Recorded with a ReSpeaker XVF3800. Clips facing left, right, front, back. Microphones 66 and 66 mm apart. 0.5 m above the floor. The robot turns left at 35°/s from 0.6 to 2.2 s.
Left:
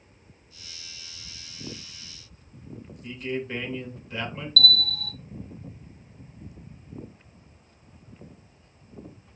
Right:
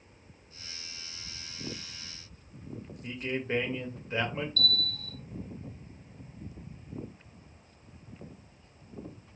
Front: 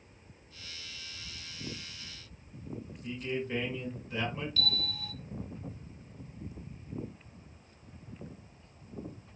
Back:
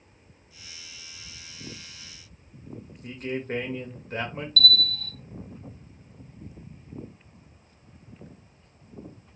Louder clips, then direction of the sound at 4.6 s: Left 7 dB, back 9 dB; 75° left.